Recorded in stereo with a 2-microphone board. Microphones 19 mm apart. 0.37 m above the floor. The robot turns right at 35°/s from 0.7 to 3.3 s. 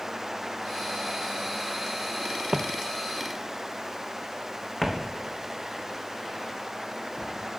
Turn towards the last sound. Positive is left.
turn(degrees=15)  # may be behind; listen again after turning